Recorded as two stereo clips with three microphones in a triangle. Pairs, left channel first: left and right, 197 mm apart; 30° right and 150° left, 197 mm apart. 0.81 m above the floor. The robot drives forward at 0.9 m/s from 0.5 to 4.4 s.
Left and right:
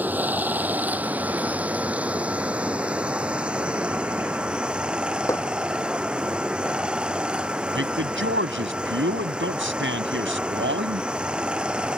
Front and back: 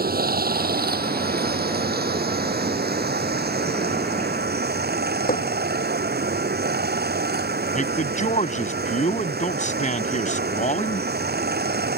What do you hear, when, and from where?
0.0 s running water: 170° right; by 12.0 s 175° right
5.3 s hammering: 15° left
7.8 s a man speaking: 80° right